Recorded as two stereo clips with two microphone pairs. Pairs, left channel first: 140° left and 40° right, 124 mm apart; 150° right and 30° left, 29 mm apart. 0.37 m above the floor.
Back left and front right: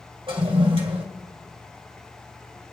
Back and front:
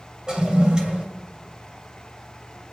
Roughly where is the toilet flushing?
Ahead.